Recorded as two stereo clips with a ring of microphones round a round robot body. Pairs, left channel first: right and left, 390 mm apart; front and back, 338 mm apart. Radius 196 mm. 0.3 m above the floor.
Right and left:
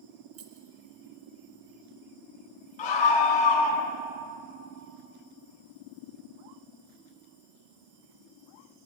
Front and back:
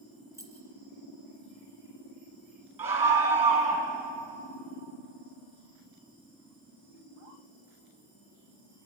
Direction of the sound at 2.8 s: 105° right.